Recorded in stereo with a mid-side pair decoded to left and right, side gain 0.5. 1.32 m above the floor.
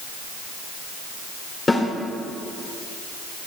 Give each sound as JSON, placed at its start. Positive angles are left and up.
{"t": 1.7, "sound": "a snare drum", "azimuth_deg": 35, "distance_m": 2.5}